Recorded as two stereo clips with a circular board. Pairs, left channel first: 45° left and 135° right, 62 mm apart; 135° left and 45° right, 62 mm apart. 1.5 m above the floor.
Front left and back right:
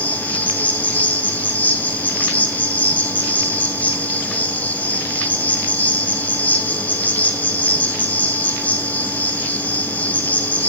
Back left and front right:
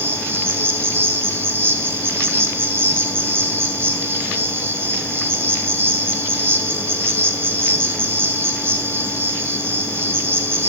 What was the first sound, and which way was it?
An insect, 10° right.